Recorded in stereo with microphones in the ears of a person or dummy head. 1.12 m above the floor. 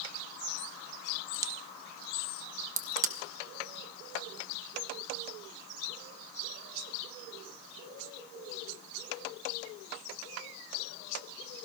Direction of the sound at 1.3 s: 15° right (ahead or behind).